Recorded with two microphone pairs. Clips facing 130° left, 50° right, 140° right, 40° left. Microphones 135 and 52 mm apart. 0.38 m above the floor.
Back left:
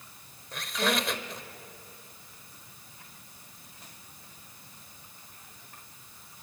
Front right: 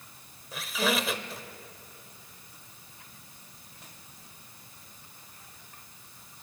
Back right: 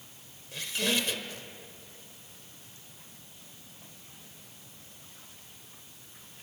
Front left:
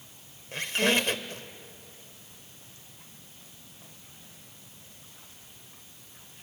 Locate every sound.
0.5 s a squeak: 35° left, 0.9 m